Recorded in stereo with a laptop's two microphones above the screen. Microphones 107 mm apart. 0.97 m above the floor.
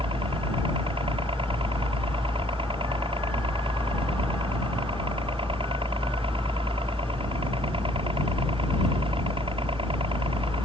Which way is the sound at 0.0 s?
60° right (ahead or behind).